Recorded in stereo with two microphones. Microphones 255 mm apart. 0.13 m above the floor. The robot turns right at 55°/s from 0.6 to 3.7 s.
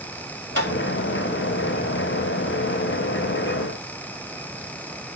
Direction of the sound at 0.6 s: 45° right (ahead or behind).